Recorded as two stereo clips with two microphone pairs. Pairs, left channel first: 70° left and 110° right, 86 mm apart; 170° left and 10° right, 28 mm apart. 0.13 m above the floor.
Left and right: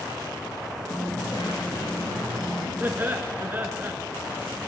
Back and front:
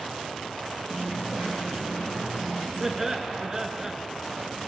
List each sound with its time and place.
0.9 s a dropped coin: 55° left, 7 m
2.8 s laughter: 65° right, 1.2 m